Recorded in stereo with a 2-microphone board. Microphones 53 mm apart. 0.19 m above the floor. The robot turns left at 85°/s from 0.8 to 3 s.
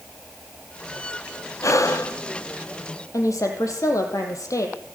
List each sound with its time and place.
1.6 s breathing: 110° left, 1.7 m; by 2.2 s 65° left, 1.7 m
3.1 s a woman speaking: 75° left (ahead or behind), 5.5 m